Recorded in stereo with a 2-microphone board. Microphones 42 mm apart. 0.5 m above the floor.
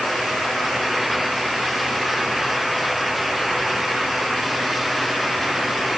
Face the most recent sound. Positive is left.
No sound to turn to.